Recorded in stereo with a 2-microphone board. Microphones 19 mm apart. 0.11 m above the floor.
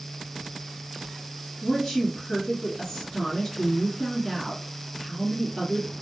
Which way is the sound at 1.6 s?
25° left (ahead or behind).